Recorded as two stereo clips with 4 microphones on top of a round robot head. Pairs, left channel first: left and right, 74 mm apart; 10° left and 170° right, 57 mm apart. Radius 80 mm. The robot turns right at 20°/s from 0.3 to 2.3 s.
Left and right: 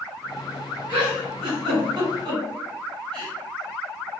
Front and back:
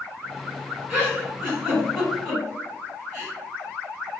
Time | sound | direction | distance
0.9 | a giggle | 90° right | 2.0 m